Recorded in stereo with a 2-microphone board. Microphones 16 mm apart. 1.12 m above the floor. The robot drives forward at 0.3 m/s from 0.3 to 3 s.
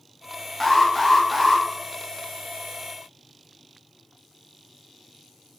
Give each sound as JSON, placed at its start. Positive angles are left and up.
{"t": 0.6, "sound": "an alarm", "side_deg": 10, "distance_m": 0.5}